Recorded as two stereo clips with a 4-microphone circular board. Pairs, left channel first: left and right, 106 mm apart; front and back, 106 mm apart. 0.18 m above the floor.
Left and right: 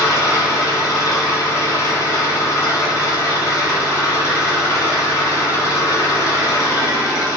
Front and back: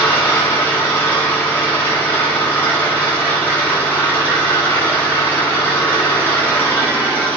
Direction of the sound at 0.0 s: 55° left.